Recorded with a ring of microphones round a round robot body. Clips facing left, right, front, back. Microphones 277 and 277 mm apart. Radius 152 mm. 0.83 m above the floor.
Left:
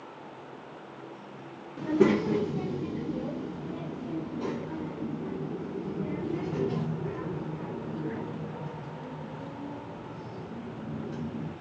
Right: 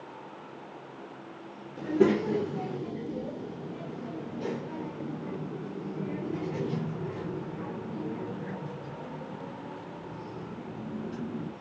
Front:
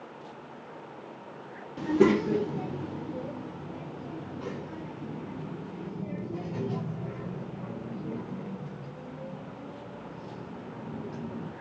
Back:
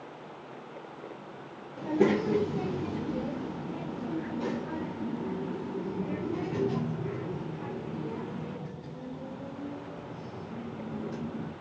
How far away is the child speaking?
About 0.5 m.